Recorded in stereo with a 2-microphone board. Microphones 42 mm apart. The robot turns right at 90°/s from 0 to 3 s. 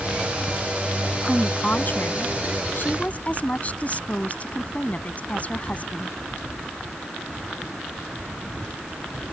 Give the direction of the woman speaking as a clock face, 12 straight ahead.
12 o'clock.